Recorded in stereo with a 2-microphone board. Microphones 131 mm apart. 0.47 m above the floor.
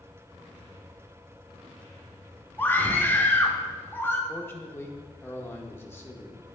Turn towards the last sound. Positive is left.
turn(degrees=20)  # may be behind; listen again after turning